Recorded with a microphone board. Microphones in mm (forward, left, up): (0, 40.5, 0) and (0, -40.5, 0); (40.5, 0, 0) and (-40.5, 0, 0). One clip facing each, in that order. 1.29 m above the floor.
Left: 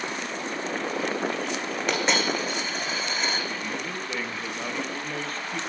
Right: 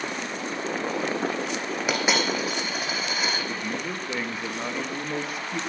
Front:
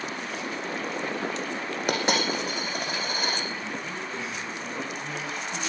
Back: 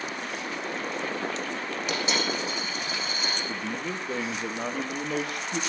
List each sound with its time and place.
1.9 s a dropped coin: 10° right, 3 m
3.5 s a man speaking: 165° right, 1.8 m